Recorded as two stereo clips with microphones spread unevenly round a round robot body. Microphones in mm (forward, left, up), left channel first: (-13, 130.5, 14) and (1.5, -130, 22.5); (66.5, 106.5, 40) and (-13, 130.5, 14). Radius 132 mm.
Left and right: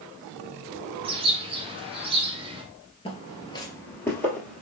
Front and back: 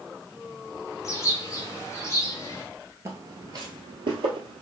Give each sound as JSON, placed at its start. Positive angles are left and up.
{"t": 1.0, "sound": "a bird", "azimuth_deg": -55, "distance_m": 0.8}
{"t": 3.0, "sound": "footsteps", "azimuth_deg": 120, "distance_m": 1.0}